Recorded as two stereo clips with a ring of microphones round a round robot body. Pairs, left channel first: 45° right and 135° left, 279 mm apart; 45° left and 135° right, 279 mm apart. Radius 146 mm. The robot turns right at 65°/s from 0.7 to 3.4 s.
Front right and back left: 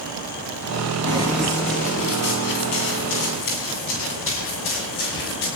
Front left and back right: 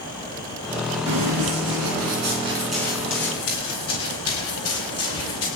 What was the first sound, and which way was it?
Running footsteps, 160° right.